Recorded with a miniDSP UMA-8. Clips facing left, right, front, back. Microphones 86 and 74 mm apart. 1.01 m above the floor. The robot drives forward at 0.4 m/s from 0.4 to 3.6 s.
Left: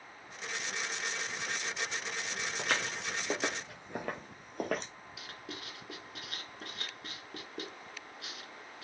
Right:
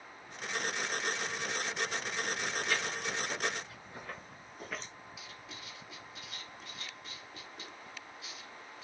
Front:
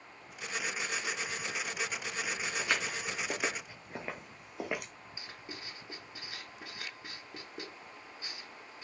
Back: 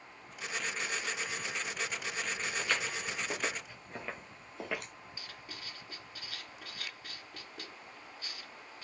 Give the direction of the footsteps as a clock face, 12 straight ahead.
9 o'clock.